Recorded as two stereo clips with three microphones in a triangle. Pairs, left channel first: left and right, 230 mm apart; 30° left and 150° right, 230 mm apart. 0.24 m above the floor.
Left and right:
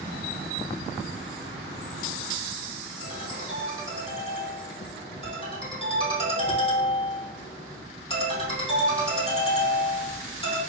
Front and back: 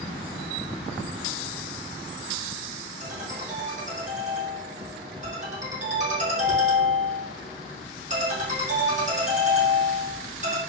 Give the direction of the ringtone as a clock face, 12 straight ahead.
7 o'clock.